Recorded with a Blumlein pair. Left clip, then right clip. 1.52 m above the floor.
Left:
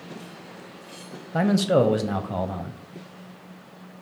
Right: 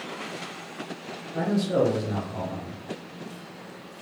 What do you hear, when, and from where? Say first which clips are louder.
1.3 s a man speaking: left 4 dB; 30° left, 0.6 m